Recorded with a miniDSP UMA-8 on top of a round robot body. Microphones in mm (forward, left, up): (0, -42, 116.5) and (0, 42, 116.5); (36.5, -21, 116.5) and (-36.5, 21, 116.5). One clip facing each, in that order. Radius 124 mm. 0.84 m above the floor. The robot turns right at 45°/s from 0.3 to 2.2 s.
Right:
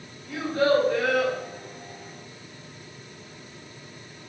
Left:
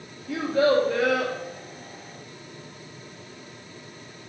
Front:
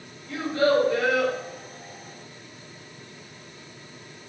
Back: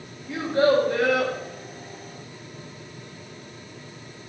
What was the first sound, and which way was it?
A child speaking, 75° left.